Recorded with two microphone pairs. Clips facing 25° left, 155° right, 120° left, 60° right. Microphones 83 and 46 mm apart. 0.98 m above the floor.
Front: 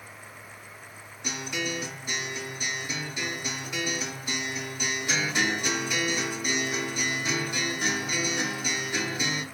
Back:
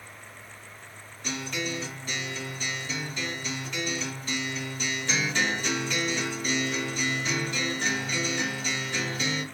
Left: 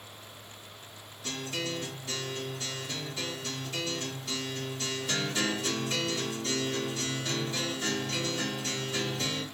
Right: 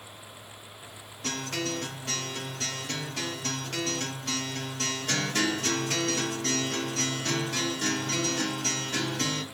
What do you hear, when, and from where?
1.2 s a guitar: 45° right, 1.0 m